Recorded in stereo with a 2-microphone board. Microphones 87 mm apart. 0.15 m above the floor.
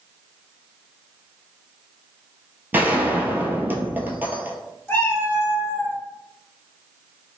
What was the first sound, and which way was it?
A gunshot, 20° right (ahead or behind).